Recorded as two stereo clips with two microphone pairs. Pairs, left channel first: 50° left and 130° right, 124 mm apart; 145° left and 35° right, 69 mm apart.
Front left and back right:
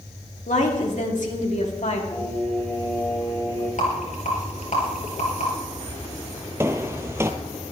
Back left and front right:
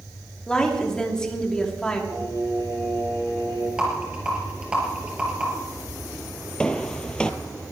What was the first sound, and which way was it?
A woman speaking, 65° left.